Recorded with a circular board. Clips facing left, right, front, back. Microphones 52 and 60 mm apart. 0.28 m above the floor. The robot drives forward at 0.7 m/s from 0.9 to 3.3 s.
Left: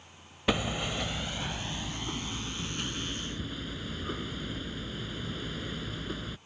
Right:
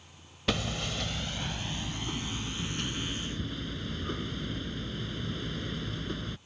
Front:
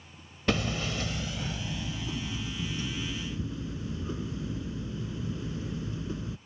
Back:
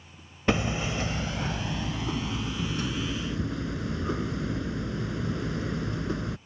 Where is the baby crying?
No baby crying in this recording.